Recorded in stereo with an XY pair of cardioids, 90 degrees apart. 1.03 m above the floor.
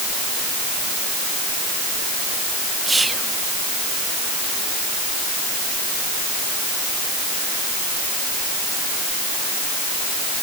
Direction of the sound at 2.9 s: 20° right.